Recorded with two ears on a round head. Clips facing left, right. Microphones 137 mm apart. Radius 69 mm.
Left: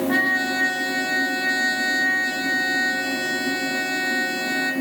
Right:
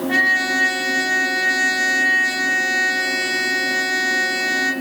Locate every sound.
0.1 s a trumpet: 25° right (ahead or behind), 1.8 m